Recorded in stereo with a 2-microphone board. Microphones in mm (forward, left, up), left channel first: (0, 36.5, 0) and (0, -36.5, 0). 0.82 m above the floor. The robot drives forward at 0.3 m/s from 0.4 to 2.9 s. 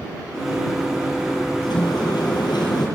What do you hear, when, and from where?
1.6 s a sliding door: 90° left, 7.5 m; by 2.9 s 85° left, 7.5 m